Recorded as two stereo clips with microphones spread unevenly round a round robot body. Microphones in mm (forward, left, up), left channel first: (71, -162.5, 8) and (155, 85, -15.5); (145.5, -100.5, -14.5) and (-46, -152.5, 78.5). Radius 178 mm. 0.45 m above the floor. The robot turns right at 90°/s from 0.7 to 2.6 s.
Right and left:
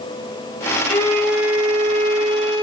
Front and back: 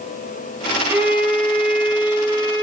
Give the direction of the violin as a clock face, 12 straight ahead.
1 o'clock.